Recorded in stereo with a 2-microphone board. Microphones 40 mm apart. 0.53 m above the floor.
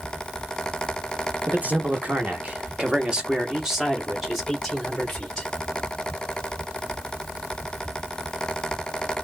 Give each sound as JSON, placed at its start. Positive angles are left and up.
{"t": 1.5, "sound": "a man speaking", "side_deg": -45, "distance_m": 1.3}